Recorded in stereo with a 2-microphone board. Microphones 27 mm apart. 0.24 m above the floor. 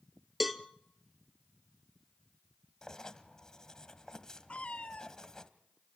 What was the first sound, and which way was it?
A cowbell, 5° right (ahead or behind).